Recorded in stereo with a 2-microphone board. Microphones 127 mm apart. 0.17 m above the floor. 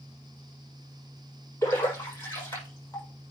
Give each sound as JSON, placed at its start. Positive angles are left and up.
{"t": 1.6, "sound": "a splash", "side_deg": 20, "distance_m": 7.0}